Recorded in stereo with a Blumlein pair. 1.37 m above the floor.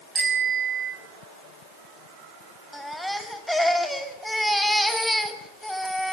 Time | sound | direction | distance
0.1 | a bicycle bell | 15° right | 7.5 m
2.7 | a baby crying | straight ahead | 2.5 m